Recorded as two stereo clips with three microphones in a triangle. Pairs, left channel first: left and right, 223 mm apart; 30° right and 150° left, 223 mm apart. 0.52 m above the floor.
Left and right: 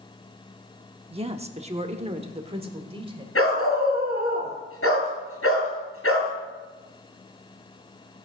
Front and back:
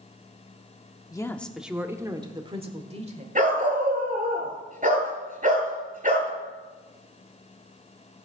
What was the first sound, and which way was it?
A woman speaking, 80° right.